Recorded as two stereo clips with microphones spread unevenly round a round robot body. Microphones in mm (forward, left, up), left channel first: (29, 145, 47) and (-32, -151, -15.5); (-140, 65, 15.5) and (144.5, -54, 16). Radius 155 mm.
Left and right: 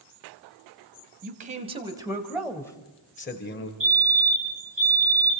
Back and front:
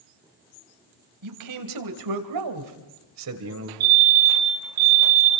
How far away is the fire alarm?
About 5.5 m.